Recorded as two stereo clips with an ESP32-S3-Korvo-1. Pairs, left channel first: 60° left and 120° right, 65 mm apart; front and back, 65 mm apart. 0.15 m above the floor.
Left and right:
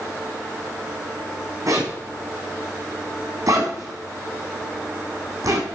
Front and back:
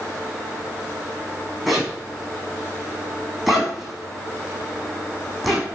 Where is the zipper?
95° right, 4 m.